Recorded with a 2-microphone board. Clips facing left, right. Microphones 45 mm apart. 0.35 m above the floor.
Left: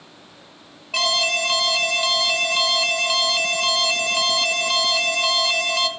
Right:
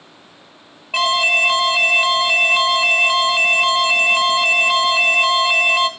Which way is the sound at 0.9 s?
20° right (ahead or behind).